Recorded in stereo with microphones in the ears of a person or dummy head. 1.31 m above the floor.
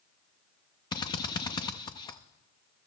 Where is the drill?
20° left (ahead or behind), 0.6 m.